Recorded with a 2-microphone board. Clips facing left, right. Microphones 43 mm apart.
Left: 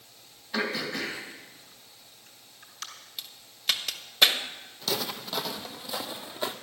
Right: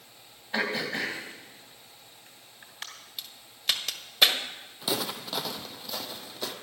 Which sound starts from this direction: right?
Throat clearing, at 0.5 s.